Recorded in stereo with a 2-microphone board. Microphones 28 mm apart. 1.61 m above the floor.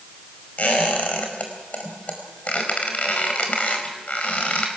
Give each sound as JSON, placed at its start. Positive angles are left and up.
{"t": 0.6, "sound": "a squeak", "side_deg": 55, "distance_m": 4.5}